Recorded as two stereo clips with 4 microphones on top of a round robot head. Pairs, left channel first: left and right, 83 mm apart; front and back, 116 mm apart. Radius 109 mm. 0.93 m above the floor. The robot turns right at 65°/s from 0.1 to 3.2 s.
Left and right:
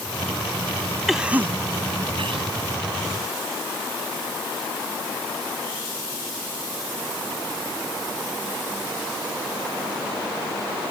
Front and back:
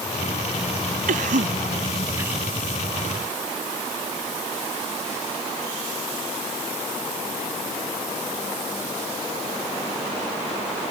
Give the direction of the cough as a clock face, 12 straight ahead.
6 o'clock.